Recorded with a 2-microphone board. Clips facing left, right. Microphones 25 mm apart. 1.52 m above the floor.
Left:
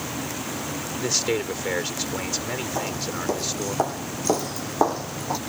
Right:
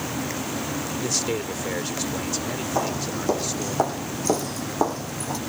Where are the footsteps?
20° right (ahead or behind); by 5.4 s 20° left (ahead or behind).